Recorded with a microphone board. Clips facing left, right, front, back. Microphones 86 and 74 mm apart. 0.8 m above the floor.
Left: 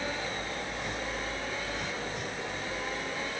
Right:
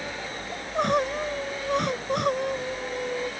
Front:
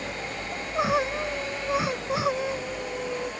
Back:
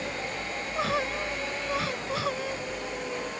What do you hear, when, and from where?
0.5 s crying: 70° right